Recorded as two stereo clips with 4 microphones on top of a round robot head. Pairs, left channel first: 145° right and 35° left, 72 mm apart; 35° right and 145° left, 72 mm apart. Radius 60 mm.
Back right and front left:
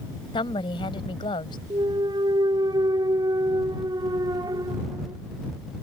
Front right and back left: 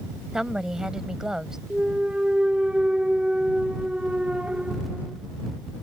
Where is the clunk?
65° left.